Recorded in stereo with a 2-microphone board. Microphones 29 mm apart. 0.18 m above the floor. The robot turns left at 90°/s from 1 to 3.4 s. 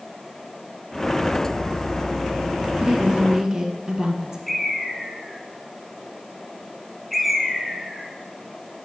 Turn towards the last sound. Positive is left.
turn(degrees=0)  # may be behind; listen again after turning